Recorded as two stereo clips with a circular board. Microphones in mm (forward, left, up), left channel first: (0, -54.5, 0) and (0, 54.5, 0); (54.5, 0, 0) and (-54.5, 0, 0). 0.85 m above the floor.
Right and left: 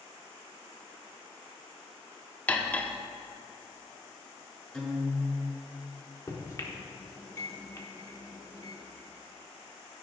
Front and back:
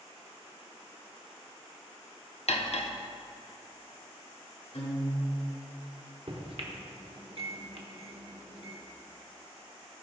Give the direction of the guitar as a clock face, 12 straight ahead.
12 o'clock.